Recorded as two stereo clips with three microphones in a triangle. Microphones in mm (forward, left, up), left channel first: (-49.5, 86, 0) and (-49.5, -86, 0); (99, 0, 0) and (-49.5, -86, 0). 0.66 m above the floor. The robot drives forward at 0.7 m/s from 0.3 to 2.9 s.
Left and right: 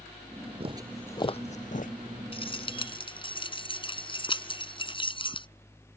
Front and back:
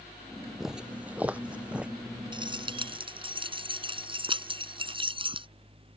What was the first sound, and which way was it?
Footsteps, 65° right.